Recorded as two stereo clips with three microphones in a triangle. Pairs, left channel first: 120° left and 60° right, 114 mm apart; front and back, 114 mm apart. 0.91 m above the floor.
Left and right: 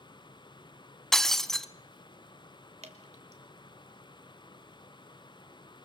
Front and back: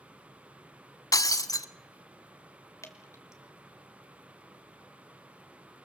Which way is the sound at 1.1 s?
35° left.